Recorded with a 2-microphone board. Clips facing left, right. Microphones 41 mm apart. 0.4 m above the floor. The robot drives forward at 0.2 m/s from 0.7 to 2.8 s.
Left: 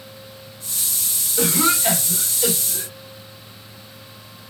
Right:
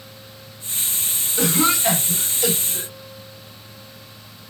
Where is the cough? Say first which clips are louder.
Even; 5° left (ahead or behind), 0.9 m.